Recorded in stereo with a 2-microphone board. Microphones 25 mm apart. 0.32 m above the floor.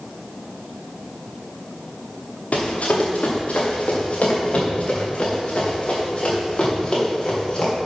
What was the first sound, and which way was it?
Running footsteps, 70° left (ahead or behind).